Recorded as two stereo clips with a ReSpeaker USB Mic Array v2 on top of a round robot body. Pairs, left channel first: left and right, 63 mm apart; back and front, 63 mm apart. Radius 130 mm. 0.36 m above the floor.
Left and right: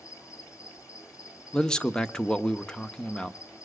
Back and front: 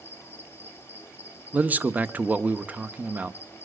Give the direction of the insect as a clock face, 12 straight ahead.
8 o'clock.